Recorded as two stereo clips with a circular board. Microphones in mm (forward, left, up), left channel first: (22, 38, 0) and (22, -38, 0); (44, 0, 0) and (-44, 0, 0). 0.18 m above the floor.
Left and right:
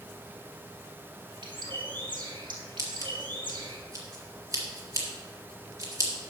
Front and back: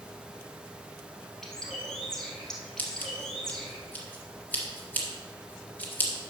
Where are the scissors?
65° right, 2.0 m.